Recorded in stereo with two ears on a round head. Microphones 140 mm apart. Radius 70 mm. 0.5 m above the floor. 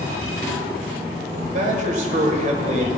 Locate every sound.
1.5 s a man speaking: 50° right (ahead or behind), 1.6 m